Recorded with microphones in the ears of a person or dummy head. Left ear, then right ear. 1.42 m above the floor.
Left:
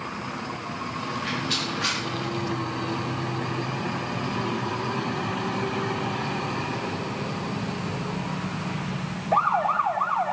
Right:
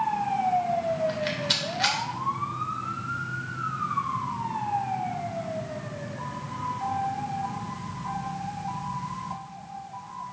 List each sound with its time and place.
1.1 s a rattle: 40° right (ahead or behind), 2.5 m